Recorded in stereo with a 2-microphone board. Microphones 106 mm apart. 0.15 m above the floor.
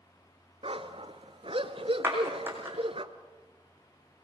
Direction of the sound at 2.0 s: 20° right (ahead or behind).